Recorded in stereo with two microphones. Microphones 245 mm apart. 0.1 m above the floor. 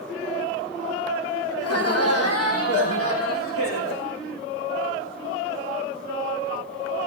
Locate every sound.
1.6 s laughter: 75° left (ahead or behind), 4.5 m; by 4.1 s 55° left (ahead or behind), 6 m